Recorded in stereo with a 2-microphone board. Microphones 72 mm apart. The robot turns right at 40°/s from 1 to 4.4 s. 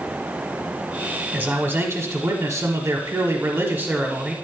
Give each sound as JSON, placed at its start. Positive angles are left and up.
{"t": 1.3, "sound": "a man speaking", "azimuth_deg": -140, "distance_m": 1.1}